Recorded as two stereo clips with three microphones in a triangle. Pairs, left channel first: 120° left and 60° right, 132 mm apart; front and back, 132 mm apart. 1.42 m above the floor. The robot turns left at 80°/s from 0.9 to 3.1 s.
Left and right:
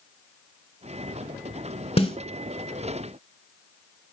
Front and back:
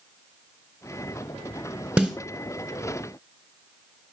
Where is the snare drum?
105° left, 1.6 m; by 2.2 s 90° left, 1.6 m.